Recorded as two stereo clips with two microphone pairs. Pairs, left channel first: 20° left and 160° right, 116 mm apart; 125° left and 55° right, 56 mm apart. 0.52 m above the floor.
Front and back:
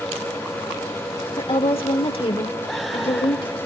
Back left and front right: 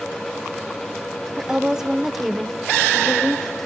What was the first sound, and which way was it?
A woman speaking, 10° left.